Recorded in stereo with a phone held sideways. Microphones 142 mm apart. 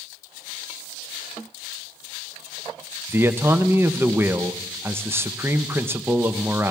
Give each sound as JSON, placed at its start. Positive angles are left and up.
{"t": 3.1, "sound": "a man speaking", "side_deg": -15, "distance_m": 0.6}